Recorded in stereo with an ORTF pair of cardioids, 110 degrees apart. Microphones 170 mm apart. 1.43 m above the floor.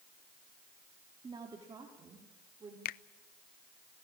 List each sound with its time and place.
1.2 s a woman speaking: 25° right, 3.5 m
2.9 s a finger snap: 65° left, 0.5 m